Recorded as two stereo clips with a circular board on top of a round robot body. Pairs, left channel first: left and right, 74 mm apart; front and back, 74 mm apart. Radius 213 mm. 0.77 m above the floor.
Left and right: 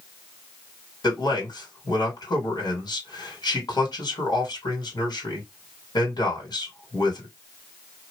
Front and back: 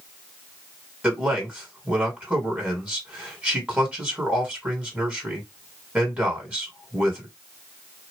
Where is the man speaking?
110° left, 2 m.